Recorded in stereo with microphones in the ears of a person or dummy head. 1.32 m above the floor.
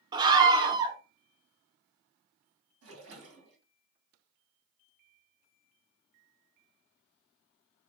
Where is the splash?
80° right, 1.6 m.